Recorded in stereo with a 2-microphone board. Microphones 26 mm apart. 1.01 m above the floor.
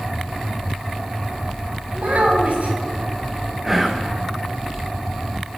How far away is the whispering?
About 0.9 m.